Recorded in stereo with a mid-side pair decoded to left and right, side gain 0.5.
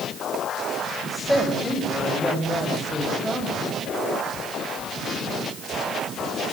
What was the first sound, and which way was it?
A woman speaking, straight ahead.